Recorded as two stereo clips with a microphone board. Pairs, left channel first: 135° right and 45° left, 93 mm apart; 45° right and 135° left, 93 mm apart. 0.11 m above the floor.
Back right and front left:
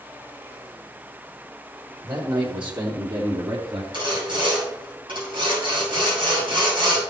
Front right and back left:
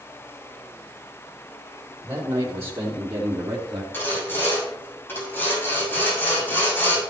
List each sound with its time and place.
2.0 s a man speaking: 75° left, 3.5 m; by 3.8 s 70° left, 2.0 m
3.9 s sawing: 20° left, 6 m